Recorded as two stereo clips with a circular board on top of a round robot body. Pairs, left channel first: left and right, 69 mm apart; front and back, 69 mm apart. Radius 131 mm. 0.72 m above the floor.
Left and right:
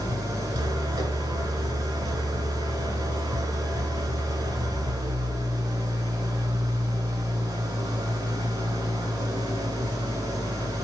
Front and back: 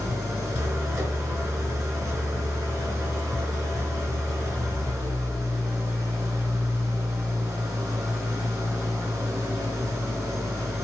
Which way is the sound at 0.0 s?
130° right.